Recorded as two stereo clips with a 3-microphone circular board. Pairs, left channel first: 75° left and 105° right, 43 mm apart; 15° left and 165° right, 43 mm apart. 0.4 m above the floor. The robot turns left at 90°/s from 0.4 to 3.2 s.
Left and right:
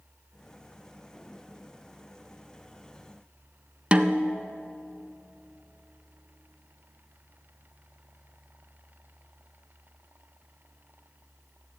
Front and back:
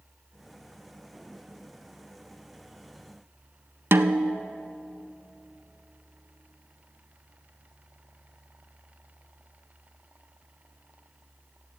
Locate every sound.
3.9 s a snare drum: 165° right, 0.5 m